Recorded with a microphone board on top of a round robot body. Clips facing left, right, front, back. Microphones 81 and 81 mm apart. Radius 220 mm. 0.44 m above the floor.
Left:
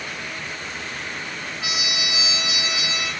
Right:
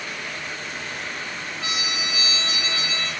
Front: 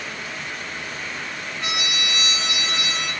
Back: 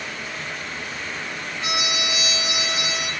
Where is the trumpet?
15° left, 3.5 m.